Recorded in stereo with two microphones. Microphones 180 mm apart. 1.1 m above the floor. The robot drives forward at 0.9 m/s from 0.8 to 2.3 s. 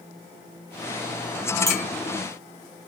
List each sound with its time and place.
1.7 s a clink: 20° left (ahead or behind), 1.3 m; by 1.8 s 15° left (ahead or behind), 1.4 m